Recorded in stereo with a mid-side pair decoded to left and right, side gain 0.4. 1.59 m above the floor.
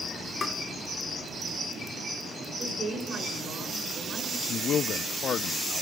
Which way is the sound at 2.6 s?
60° right.